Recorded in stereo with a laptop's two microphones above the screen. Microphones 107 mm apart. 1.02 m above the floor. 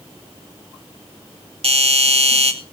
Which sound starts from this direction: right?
A doorbell, at 1.6 s.